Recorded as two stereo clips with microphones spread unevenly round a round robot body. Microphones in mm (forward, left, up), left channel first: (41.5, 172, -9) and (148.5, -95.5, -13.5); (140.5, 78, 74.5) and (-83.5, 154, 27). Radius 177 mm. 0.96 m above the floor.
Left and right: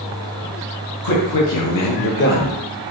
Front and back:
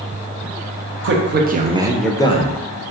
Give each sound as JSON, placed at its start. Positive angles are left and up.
{"t": 1.0, "sound": "a man speaking", "azimuth_deg": 140, "distance_m": 0.8}